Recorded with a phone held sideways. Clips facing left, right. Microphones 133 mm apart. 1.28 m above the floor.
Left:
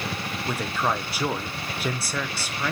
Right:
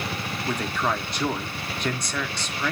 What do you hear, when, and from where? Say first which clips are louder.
0.5 s a man speaking: even; 5° left (ahead or behind), 0.8 m